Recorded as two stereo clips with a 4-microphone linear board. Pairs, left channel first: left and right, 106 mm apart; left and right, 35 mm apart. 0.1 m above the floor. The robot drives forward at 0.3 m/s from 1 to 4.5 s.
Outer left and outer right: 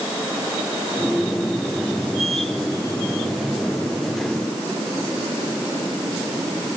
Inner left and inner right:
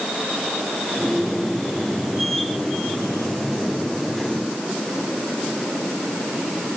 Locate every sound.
Only background noise.